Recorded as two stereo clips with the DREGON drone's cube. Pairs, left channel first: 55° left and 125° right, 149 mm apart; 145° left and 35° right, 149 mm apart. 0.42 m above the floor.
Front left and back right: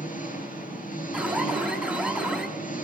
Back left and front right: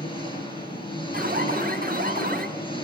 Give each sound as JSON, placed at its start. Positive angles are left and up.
{"t": 0.0, "sound": "an engine running", "azimuth_deg": 85, "distance_m": 7.0}
{"t": 1.1, "sound": "an alarm", "azimuth_deg": -40, "distance_m": 4.0}